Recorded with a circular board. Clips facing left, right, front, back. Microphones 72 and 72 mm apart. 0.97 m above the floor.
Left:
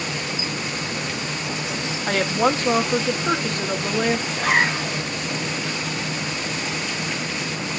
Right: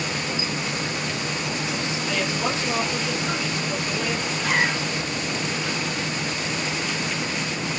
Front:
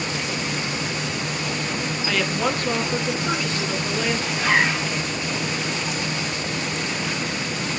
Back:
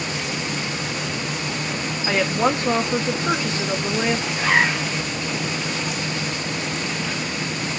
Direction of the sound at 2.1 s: 120° left.